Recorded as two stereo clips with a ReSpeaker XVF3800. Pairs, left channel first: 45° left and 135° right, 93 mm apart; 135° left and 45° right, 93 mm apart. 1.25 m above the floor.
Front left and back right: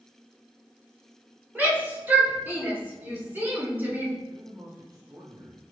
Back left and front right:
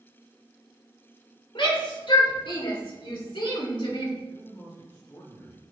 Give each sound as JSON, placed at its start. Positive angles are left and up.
{"t": 1.6, "sound": "a shout", "azimuth_deg": 155, "distance_m": 4.5}
{"t": 4.3, "sound": "a man speaking", "azimuth_deg": 170, "distance_m": 4.5}